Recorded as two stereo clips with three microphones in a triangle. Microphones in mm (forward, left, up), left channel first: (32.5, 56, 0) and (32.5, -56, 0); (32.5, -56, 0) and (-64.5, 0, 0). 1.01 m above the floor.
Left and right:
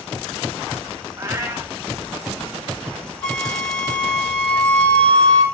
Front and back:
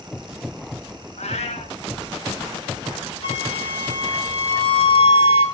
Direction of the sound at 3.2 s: 5° left.